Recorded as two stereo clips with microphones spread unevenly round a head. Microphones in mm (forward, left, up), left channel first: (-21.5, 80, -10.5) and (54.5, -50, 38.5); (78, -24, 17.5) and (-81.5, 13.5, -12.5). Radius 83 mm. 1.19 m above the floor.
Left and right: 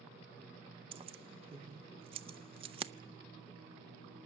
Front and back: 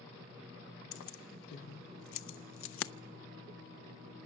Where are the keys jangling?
5° right, 0.6 m.